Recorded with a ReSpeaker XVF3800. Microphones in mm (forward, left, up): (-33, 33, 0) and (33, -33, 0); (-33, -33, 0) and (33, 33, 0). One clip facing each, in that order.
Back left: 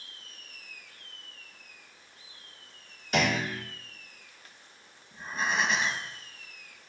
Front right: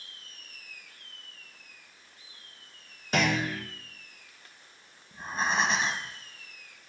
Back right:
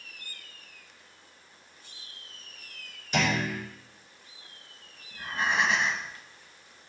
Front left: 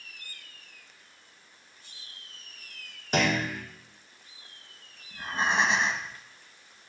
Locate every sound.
3.1 s a clunk: 10° left, 3 m
5.1 s breathing: 10° right, 1.0 m